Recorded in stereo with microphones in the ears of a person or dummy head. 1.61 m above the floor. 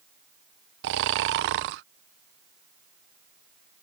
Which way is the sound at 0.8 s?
60° right (ahead or behind).